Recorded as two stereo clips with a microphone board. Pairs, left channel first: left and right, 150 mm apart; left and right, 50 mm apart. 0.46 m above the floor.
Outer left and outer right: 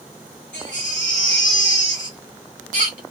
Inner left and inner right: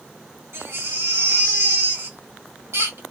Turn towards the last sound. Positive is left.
turn(degrees=-65)  # may be behind; listen again after turning